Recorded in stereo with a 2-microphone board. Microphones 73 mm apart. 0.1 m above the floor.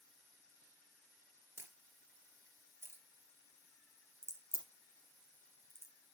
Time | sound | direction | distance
1.6 | a camera shutter | 35° right (ahead or behind) | 2 m
4.2 | a crack | 35° left (ahead or behind) | 2 m